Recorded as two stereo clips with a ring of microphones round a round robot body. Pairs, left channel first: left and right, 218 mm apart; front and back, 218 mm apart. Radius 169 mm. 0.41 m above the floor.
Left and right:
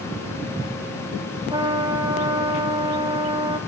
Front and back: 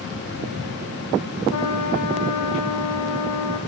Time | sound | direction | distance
1.5 | a trumpet | 20° right | 5 m